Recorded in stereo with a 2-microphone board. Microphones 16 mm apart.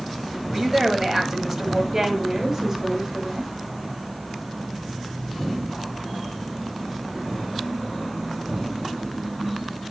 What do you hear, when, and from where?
0.5 s a woman speaking: 20° right (ahead or behind), 1.5 m
1.9 s a woman speaking: 30° right (ahead or behind), 2.0 m